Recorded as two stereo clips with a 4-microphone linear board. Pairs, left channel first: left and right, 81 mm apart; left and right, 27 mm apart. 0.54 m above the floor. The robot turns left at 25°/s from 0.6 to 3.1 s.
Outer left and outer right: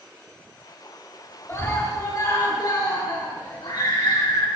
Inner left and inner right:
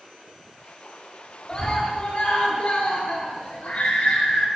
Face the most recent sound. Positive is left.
turn(degrees=105)